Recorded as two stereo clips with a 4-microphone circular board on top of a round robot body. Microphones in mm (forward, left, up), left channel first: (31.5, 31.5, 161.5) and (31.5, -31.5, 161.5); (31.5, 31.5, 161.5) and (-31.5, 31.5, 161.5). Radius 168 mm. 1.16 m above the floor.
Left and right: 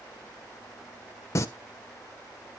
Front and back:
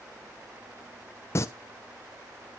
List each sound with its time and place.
1.4 s singing: 50° left, 0.8 m